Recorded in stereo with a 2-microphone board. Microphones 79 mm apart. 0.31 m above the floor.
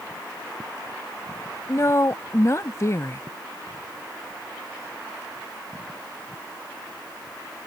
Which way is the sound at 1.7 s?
40° left (ahead or behind).